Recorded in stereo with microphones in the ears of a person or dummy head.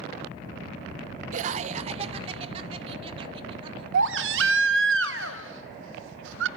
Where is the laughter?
50° right (ahead or behind), 0.8 m; by 3.8 s 35° right (ahead or behind), 3 m.